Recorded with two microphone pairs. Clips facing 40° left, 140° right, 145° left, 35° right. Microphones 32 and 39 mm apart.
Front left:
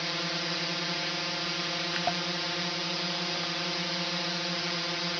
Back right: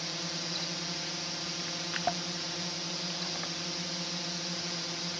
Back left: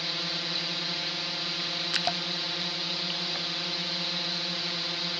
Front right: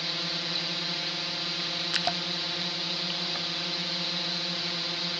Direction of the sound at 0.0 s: 55° left.